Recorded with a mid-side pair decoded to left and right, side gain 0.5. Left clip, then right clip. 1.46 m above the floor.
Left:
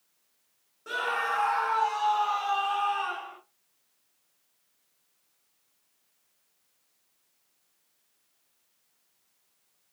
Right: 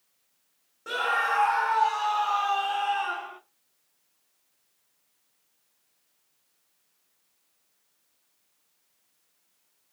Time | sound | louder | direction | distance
0.9 | a scream | right 3 dB | 25° right | 1.2 m